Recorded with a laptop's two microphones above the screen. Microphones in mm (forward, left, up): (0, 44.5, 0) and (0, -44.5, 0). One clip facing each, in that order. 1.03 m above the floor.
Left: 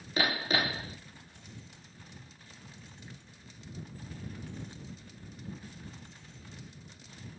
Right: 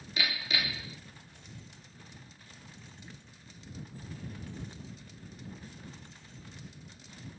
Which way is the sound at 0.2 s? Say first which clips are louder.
Left 5 dB; 40° left (ahead or behind).